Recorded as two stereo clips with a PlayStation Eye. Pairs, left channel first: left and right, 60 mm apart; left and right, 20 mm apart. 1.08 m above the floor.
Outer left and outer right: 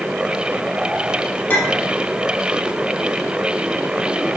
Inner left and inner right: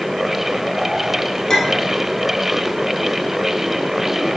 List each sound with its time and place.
1.5 s a clink: 30° left (ahead or behind), 1.4 m